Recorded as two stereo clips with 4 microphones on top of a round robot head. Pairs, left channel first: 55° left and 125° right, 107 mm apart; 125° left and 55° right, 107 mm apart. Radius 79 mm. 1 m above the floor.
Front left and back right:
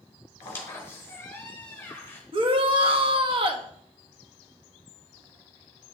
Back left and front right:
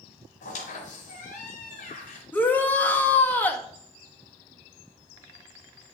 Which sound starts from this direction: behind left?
A squeak, at 0.4 s.